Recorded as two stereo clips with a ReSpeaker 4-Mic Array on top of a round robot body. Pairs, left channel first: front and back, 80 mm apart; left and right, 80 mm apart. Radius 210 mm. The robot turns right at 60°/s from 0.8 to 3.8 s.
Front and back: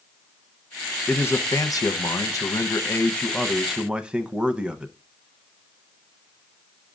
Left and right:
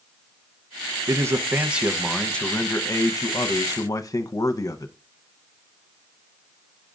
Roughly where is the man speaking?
Ahead right.